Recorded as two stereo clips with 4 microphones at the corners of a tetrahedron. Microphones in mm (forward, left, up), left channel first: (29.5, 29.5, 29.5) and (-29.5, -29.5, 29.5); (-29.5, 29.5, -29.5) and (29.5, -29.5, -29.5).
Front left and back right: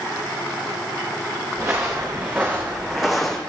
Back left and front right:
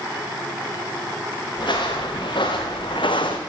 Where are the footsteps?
165° left, 2.5 m; by 3.4 s 130° left, 1.1 m.